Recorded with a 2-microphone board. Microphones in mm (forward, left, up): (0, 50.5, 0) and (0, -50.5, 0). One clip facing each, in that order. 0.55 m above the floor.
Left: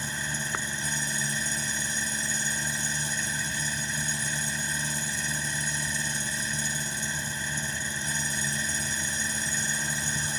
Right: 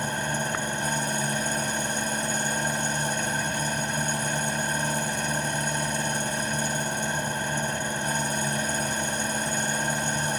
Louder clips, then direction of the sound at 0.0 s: Right 7 dB; 60° right (ahead or behind).